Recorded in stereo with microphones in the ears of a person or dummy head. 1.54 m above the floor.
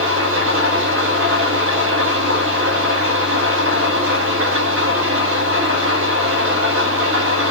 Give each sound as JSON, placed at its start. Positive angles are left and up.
{"t": 0.0, "sound": "an engine running", "side_deg": -85, "distance_m": 5.5}